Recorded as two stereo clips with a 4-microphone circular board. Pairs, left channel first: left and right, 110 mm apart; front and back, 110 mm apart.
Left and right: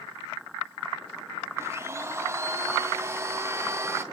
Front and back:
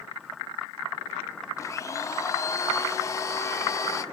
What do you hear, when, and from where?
1.6 s a blender: 40° right, 0.5 m